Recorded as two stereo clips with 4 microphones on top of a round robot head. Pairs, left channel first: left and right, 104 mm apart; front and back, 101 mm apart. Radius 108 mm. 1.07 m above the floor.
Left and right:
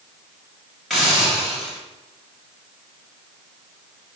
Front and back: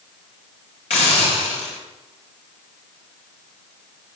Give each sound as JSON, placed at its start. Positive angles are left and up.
{"t": 0.9, "sound": "a hiss", "azimuth_deg": 5, "distance_m": 5.0}